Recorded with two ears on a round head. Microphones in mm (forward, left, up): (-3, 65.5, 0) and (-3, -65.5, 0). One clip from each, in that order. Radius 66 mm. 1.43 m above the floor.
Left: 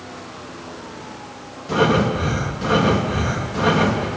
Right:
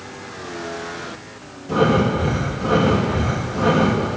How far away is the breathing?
About 2.5 m.